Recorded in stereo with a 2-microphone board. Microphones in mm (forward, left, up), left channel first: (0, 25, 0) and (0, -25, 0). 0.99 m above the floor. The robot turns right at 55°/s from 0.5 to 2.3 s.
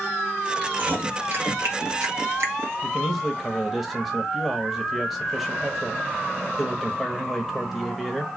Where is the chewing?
20° right (ahead or behind), 1.6 m; by 2.7 s 55° right (ahead or behind), 1.6 m.